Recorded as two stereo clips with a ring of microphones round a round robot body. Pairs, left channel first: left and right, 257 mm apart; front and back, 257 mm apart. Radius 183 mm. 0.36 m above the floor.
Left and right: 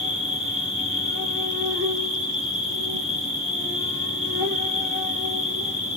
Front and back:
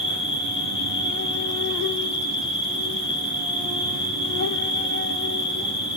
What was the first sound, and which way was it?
An insect, 130° right.